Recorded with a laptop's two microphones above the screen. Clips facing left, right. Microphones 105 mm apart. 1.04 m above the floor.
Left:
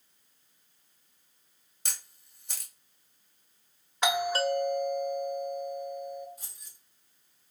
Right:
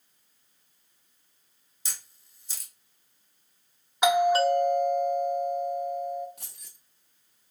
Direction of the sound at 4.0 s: 15° right (ahead or behind).